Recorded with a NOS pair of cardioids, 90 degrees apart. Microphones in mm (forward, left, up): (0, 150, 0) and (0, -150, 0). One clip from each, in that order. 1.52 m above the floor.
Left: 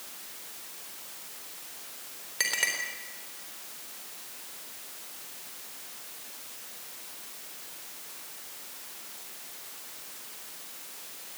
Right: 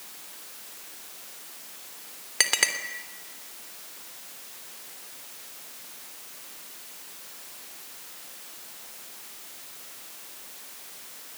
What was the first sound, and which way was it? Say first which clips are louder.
A clink: right 4 dB; 55° right.